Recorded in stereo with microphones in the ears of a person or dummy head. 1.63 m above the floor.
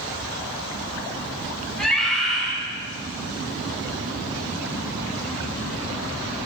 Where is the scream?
Centre (ahead or behind), 7.5 m.